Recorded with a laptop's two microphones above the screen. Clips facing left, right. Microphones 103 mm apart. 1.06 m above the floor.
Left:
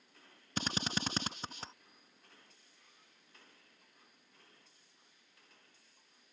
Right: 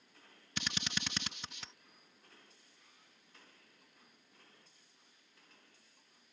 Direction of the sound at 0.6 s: 35° left (ahead or behind).